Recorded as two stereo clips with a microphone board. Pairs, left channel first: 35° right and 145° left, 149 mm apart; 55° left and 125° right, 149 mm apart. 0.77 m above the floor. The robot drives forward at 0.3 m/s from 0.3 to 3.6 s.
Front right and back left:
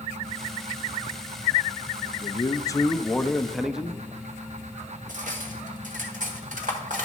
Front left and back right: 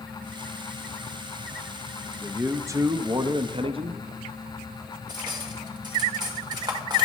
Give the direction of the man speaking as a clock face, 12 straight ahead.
2 o'clock.